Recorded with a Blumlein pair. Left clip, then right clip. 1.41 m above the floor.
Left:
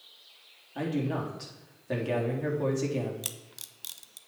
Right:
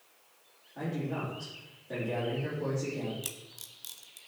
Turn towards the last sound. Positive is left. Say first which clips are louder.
# left 2 dB
turn(degrees=15)